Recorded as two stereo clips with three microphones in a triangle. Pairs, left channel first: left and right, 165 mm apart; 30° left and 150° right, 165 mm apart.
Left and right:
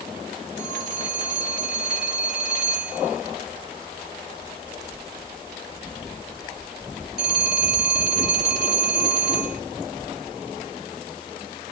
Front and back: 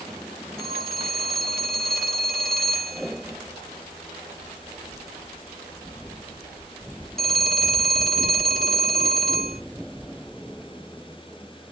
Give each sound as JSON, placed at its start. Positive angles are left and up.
{"t": 0.6, "sound": "a phone ringing", "azimuth_deg": 120, "distance_m": 1.7}